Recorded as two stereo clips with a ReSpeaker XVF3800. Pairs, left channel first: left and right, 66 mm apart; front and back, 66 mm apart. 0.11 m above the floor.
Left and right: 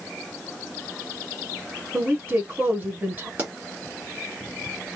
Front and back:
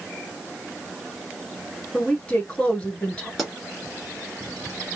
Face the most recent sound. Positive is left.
turn(degrees=-85)